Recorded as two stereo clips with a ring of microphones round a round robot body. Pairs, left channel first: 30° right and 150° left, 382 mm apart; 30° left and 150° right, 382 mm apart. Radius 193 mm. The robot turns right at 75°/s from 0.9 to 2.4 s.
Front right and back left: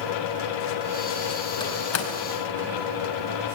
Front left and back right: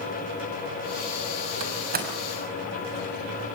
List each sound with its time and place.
1.6 s a door slam: 110° right, 5 m; by 2.1 s 75° right, 5 m